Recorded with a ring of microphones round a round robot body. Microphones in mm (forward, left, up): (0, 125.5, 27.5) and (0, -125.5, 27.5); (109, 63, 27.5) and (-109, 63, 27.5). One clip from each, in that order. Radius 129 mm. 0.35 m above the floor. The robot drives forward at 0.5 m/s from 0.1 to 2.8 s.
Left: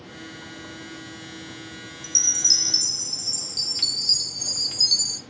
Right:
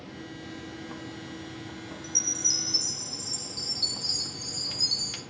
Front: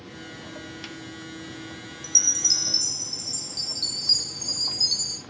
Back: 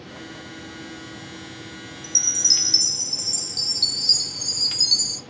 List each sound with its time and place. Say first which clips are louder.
2.0 s a chime: left 7 dB, back 2 dB; 75° left, 0.5 m; by 5.2 s 135° left, 0.6 m